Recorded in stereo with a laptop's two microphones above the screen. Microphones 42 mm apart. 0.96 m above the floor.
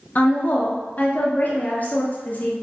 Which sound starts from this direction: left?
A woman speaking, at 0.1 s.